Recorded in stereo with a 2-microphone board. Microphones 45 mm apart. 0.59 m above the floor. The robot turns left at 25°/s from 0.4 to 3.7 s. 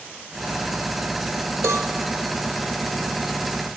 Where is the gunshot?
No gunshot in this recording.